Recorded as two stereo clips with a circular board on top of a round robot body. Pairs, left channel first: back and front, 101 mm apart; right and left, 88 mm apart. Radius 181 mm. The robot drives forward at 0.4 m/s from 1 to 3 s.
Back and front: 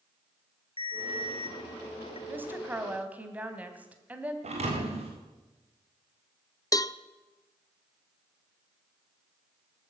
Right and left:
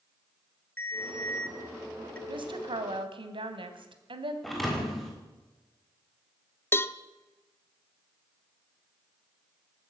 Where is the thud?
Straight ahead, 6 m.